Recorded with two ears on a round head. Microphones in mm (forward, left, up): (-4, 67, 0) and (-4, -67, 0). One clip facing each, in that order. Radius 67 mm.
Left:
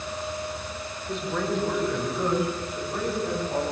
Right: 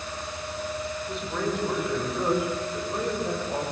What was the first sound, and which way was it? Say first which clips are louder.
A man speaking: left 3 dB; centre (ahead or behind).